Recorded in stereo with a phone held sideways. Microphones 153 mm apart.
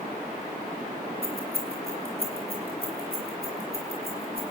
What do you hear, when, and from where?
1.2 s keys jangling: 80° right, 5.5 m; by 4.5 s 90° right, 9.5 m